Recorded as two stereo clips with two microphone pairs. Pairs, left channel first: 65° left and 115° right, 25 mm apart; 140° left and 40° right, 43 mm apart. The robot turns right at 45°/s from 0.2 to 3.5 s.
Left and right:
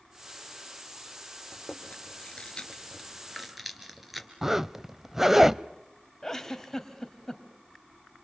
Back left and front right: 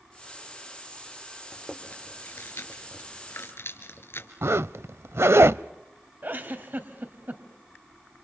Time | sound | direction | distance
1.5 | chewing | 75° left | 3 m
4.4 | a zipper | 35° right | 0.5 m
6.2 | a giggle | 10° right | 2.5 m